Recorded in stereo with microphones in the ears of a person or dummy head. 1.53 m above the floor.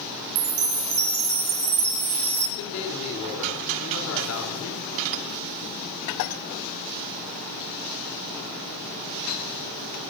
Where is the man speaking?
75° left (ahead or behind), 4.5 m.